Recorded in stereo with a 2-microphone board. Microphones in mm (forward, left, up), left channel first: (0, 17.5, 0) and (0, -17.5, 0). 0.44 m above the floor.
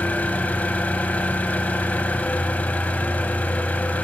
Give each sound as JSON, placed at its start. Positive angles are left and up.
{"t": 0.0, "sound": "an engine running", "side_deg": 50, "distance_m": 0.8}